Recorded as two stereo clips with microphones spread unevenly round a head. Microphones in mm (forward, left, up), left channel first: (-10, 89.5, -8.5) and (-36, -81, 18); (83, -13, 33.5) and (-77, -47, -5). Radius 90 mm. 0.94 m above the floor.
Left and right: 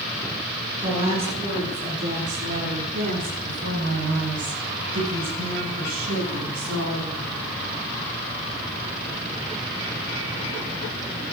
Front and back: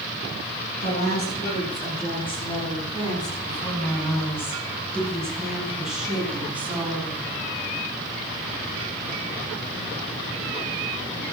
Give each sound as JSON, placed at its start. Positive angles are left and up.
{"t": 0.8, "sound": "a woman speaking", "azimuth_deg": -35, "distance_m": 9.5}